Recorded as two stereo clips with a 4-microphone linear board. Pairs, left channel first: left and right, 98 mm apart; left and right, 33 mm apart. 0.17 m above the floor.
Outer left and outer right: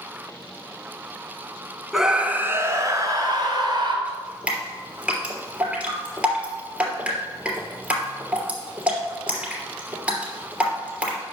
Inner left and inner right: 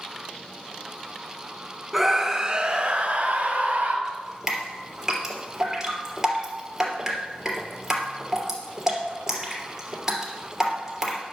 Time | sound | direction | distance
1.9 | a scream | 5° right (ahead or behind) | 1.4 m
4.0 | dripping | 10° right (ahead or behind) | 3 m